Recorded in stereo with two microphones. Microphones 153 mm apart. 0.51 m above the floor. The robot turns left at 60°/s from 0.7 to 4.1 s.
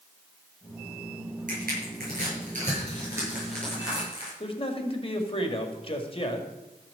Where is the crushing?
60° right (ahead or behind), 8 m; by 4.3 s 35° left (ahead or behind), 8 m.